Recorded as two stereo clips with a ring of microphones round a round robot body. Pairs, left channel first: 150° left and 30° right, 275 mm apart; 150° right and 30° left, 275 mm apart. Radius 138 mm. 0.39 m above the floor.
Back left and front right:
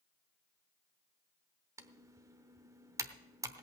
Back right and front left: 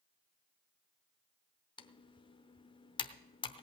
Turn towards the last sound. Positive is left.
turn(degrees=-95)